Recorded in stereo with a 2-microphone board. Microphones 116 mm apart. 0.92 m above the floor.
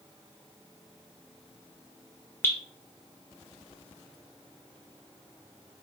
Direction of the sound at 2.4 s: 20° left (ahead or behind).